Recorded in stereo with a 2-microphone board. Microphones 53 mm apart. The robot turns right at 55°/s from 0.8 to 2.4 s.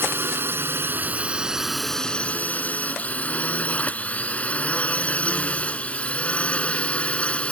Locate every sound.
0.0 s a drone: 45° right (ahead or behind); by 7.5 s 20° left (ahead or behind)